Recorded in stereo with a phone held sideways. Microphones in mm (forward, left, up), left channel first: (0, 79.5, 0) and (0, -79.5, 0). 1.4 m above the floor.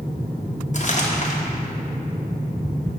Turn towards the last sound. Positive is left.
turn(degrees=50)  # may be behind; listen again after turning